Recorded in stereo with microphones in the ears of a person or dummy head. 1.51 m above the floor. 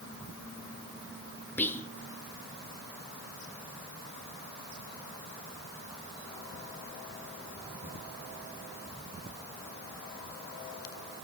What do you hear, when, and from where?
1.6 s whispering: 10° left (ahead or behind), 0.9 m